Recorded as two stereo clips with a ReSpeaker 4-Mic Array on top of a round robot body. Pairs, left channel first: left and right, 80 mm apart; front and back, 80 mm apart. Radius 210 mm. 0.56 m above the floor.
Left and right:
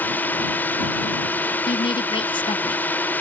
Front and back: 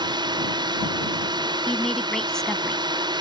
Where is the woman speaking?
85° left.